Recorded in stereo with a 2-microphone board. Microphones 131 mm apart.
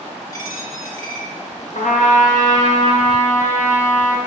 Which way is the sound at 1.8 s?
75° left (ahead or behind).